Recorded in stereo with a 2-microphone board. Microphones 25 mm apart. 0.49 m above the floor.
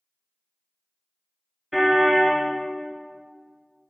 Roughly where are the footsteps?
No footsteps in this recording.